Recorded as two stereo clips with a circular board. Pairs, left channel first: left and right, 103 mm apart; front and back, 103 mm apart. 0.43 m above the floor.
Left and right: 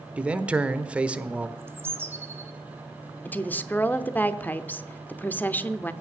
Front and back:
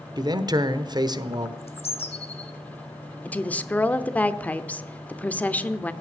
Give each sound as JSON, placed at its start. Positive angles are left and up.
{"t": 0.2, "sound": "a man speaking", "azimuth_deg": -165, "distance_m": 0.9}
{"t": 1.6, "sound": "a bird", "azimuth_deg": -20, "distance_m": 1.2}
{"t": 3.2, "sound": "a woman speaking", "azimuth_deg": 50, "distance_m": 0.7}